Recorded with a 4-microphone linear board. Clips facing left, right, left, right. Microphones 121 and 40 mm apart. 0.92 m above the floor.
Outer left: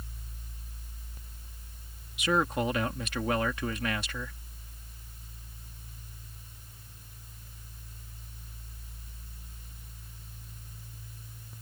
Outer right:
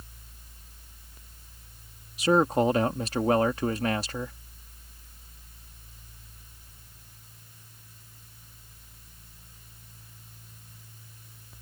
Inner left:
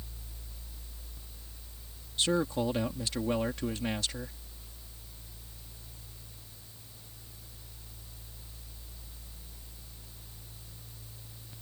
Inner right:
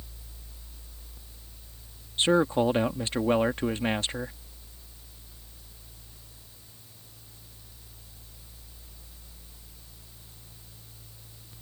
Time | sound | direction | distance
2.2 | a man speaking | 35° right (ahead or behind) | ?